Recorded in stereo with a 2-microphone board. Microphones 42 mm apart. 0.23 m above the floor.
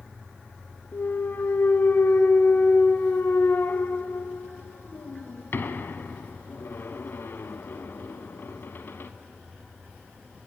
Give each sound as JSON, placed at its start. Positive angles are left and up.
{"t": 0.9, "sound": "a clunk", "side_deg": 60, "distance_m": 0.5}